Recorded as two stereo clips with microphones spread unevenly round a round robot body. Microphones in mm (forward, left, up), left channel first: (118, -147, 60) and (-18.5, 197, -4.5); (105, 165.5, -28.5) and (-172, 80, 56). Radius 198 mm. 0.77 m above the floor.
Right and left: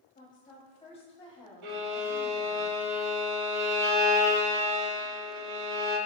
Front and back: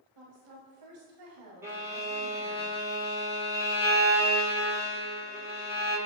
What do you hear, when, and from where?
0.1 s a woman speaking: 140° right, 5.5 m; by 2.6 s 160° right, 5 m
1.6 s a violin: 120° left, 5.5 m